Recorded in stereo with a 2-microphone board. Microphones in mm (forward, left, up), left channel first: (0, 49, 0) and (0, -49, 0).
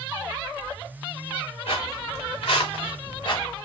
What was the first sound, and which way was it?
Footsteps, 70° left (ahead or behind).